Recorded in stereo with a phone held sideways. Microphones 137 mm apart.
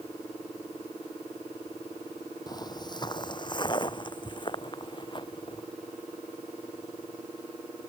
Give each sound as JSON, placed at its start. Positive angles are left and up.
{"t": 2.5, "sound": "footsteps", "side_deg": 30}